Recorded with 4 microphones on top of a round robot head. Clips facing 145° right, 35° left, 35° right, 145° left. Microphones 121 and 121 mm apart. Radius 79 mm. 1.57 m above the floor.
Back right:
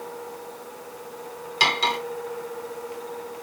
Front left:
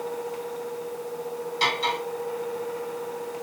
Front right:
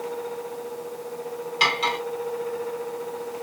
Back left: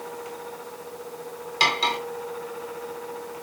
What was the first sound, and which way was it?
Cutlery clinking, 160° right.